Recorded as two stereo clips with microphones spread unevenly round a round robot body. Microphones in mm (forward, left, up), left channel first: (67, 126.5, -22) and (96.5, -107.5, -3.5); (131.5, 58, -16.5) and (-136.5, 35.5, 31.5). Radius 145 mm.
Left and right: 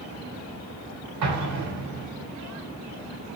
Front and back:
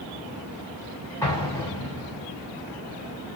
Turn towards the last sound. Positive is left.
turn(degrees=-75)